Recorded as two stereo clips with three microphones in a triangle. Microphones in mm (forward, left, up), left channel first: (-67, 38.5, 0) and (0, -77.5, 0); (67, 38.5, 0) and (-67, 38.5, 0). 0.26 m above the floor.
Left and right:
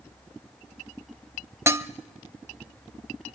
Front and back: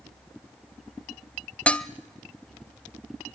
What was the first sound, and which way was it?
Dishes clattering, 60° right.